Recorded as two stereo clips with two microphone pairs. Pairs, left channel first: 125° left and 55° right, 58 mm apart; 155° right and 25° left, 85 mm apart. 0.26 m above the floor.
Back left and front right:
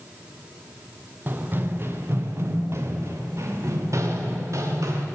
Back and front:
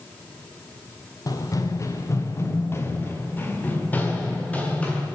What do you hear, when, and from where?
1.3 s running footsteps: 115° right, 1.7 m; by 5.1 s 80° right, 3.5 m